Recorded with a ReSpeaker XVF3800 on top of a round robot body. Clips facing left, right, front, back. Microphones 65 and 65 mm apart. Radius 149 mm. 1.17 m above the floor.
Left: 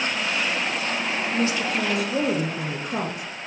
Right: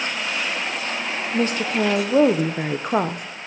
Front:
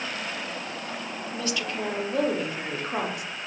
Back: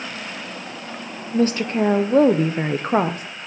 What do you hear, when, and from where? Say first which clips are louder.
1.3 s a woman speaking: right 4 dB, back 12 dB; 130° right, 0.7 m